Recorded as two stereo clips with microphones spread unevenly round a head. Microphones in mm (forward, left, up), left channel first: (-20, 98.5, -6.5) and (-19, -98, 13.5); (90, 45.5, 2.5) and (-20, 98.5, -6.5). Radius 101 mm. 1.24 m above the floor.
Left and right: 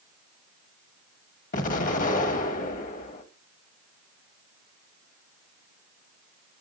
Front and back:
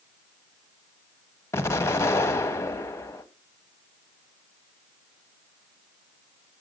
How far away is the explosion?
About 1.1 m.